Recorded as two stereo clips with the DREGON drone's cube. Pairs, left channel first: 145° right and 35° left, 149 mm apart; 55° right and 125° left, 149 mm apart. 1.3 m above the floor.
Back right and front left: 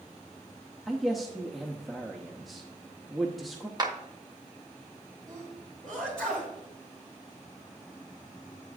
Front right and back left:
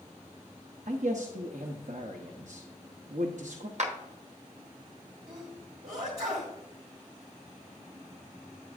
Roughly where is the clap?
Left.